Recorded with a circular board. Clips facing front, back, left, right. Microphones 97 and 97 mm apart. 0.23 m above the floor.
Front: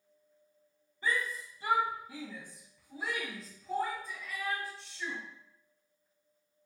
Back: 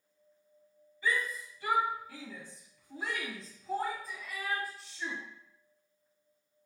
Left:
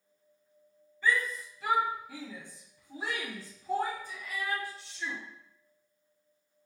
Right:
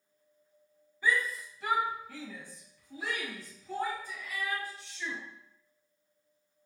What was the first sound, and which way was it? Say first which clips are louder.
A shout: back 1 dB, left 1 dB; 20° right.